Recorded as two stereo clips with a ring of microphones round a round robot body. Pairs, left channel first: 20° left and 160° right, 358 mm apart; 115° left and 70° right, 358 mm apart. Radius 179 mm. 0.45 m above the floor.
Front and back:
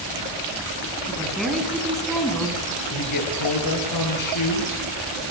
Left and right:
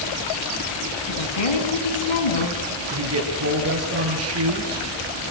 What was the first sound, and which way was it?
A woman speaking, 110° left.